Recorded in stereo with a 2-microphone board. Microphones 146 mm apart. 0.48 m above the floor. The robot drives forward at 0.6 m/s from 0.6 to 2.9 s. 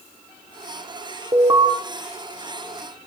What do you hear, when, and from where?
1.3 s an alarm: 30° right (ahead or behind), 1.1 m